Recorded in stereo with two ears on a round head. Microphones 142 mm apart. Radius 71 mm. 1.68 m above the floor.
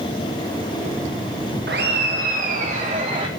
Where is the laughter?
70° right (ahead or behind), 1.6 m; by 3.3 s 35° right (ahead or behind), 1.4 m.